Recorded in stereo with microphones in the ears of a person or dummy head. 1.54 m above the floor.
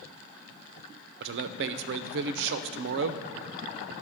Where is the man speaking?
65° right (ahead or behind), 0.5 m.